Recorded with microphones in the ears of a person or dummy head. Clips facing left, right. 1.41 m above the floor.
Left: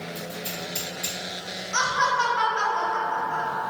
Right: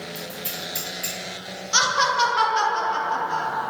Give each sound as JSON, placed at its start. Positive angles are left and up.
{"t": 0.1, "sound": "scissors", "side_deg": -5, "distance_m": 1.6}
{"t": 1.7, "sound": "laughter", "side_deg": -45, "distance_m": 0.6}